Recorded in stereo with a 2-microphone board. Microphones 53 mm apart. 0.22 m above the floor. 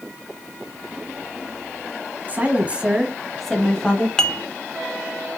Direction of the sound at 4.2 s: 10° left (ahead or behind).